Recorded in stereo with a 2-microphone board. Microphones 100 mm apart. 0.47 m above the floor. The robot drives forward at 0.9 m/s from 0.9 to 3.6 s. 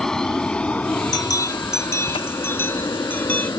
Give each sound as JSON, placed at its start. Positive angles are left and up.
{"t": 0.0, "sound": "an aircraft", "side_deg": 5}
{"t": 1.1, "sound": "a bell", "side_deg": 40}